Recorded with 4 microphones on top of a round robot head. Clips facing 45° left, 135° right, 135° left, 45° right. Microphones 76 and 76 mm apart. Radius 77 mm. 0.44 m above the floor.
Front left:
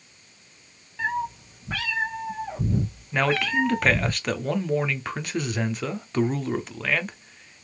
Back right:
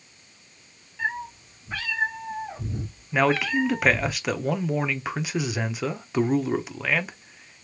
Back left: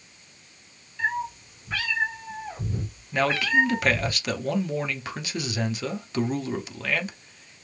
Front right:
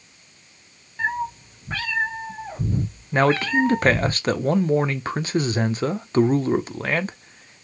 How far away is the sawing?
No sawing in this recording.